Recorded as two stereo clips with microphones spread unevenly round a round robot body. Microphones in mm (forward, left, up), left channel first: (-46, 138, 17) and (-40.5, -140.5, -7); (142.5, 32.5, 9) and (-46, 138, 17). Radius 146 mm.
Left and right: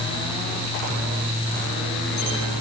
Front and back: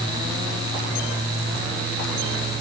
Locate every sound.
Only background noise.